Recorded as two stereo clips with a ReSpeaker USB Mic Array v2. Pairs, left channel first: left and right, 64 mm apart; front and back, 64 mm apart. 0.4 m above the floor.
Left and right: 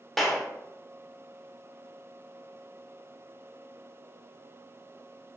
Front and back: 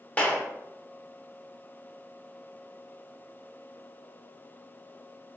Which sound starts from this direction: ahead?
A clap, at 0.2 s.